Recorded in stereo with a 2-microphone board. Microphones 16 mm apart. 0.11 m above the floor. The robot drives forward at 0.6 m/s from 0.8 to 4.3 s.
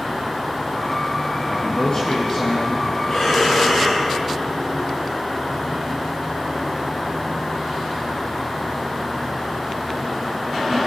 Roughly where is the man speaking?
Left.